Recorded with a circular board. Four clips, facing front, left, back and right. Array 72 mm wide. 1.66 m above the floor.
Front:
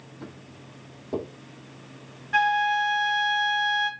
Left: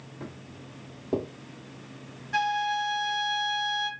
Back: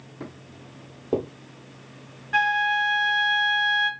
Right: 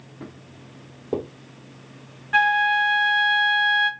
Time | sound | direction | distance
0.2 | footsteps | 175° left | 3 m
2.3 | a flute | 95° right | 0.5 m